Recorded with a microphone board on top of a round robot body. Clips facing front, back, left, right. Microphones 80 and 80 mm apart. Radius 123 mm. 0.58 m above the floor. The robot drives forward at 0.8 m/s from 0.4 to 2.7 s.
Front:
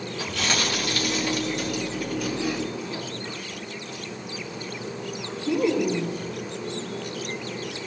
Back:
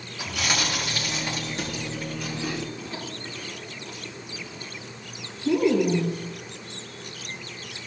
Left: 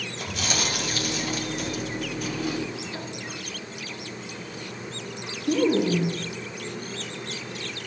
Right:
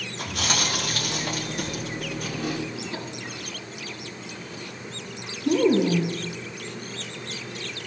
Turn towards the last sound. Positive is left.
turn(degrees=-130)